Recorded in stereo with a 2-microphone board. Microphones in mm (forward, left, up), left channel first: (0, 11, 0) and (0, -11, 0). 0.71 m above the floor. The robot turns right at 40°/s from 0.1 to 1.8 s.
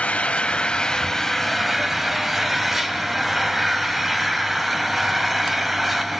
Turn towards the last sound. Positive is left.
turn(degrees=-170)